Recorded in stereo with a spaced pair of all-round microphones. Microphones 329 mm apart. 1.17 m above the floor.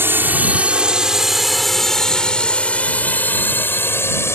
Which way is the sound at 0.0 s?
5° right (ahead or behind).